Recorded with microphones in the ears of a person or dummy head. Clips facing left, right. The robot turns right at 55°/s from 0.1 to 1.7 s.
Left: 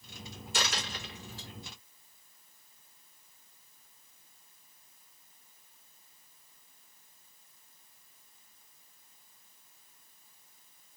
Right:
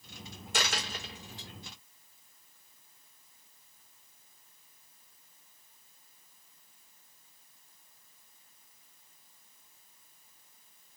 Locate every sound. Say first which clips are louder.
0.5 s a dropped coin: right 1 dB; 50° right (ahead or behind), 1.3 m; by 1.5 s 15° right (ahead or behind), 1.3 m